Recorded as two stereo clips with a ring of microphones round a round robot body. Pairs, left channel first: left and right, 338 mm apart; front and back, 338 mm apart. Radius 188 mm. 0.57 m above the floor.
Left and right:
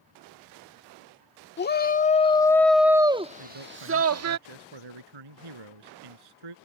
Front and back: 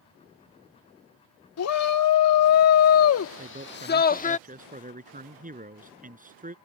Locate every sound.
1.6 s a shout: 35° left; by 4.4 s 65° right
3.4 s a man speaking: 115° right